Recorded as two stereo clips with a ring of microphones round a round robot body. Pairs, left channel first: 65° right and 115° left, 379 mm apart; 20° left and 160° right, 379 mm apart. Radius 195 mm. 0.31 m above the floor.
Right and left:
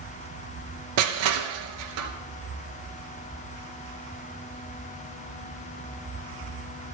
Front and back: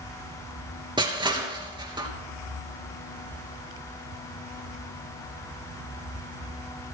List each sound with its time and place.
1.0 s crushing: 125° left, 3 m